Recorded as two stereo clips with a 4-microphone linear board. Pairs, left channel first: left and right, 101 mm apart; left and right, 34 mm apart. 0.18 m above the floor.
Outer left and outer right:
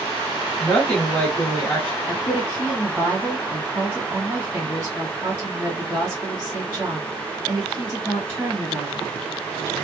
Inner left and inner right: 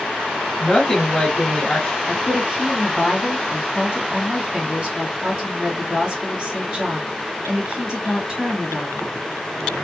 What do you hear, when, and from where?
0.6 s a woman speaking: 15° left (ahead or behind), 1.0 m
2.1 s a woman speaking: 20° right (ahead or behind), 2 m